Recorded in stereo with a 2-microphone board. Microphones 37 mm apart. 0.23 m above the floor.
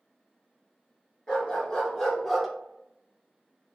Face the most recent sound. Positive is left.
turn(degrees=-5)  # may be behind; listen again after turning